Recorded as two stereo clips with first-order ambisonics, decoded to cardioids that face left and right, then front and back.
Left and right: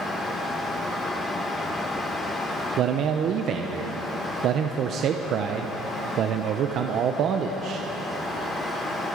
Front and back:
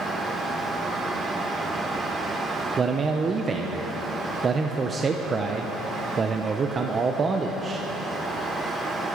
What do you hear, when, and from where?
2.8 s a man speaking: 120° right, 0.7 m